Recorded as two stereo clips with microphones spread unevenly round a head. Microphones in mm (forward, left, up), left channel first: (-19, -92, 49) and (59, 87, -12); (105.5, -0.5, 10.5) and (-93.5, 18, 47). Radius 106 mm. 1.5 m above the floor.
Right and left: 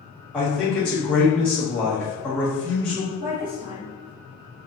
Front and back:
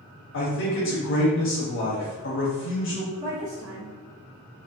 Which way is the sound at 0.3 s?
25° right.